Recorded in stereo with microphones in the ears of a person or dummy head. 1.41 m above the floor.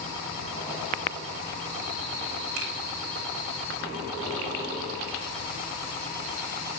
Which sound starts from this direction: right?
A finger snap, at 2.6 s.